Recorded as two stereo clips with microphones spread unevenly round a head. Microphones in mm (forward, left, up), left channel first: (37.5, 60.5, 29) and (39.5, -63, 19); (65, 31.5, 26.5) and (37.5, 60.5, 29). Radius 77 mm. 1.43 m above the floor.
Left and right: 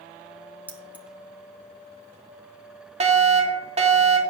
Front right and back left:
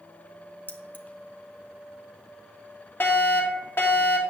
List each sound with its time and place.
0.7 s keys jangling: 10° right, 1.8 m
3.0 s a fire alarm: 70° right, 3 m